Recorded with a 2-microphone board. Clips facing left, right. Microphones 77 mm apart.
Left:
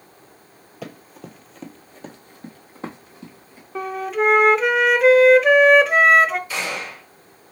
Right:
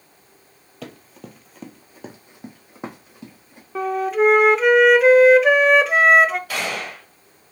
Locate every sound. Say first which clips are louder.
0.8 s running footsteps: left 1 dB; 5° left (ahead or behind), 0.9 m; by 3.6 s 20° right (ahead or behind), 2 m
3.8 s a flute: right 4 dB; centre (ahead or behind), 0.5 m
6.5 s a gunshot: right 1 dB; 65° right (ahead or behind), 2.5 m